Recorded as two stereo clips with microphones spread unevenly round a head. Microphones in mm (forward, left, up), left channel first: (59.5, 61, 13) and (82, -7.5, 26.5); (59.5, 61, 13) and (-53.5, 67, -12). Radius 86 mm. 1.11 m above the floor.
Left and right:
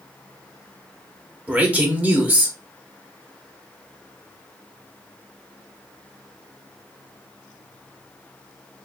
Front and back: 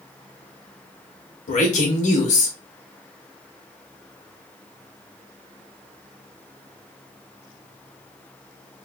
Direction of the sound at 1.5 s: 5° left.